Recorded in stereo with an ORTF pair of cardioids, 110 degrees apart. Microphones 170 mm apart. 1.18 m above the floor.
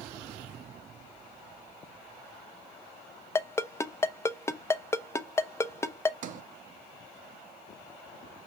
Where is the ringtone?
15° left, 0.5 m.